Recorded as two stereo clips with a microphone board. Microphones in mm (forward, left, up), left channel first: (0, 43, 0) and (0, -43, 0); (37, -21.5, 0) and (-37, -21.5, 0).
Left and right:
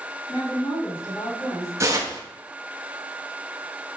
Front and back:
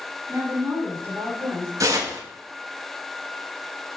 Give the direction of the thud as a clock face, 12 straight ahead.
No thud in this recording.